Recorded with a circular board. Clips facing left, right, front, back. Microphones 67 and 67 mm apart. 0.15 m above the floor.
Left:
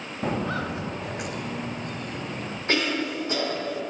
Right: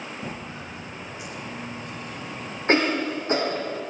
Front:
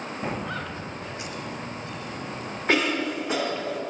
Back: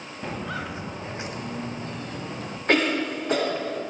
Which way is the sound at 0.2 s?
70° left.